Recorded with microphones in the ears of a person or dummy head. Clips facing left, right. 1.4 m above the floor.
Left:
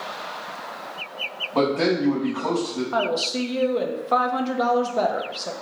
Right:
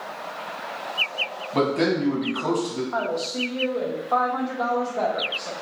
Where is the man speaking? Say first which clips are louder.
Left 1 dB; 20° right (ahead or behind), 0.6 m.